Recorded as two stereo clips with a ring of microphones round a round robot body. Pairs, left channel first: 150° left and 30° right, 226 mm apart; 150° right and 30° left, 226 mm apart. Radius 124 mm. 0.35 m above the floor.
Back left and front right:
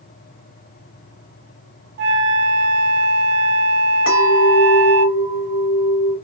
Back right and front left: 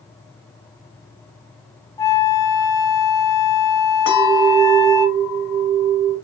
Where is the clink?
Straight behind, 2.5 m.